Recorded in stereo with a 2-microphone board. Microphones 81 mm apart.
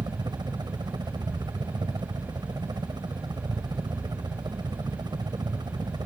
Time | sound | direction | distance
0.0 | a helicopter | 60° right (ahead or behind) | ?